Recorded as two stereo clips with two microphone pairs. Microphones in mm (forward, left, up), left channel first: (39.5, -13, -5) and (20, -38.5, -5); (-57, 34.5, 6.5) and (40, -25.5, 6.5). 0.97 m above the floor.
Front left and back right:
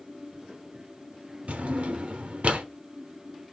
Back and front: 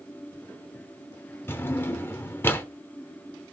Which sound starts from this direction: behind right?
A drawer, at 1.5 s.